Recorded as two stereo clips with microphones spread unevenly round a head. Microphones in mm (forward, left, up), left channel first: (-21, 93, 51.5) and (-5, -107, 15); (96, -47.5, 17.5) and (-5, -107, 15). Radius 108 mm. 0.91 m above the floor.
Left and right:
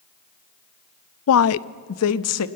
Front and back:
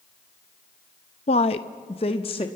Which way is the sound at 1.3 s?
75° left.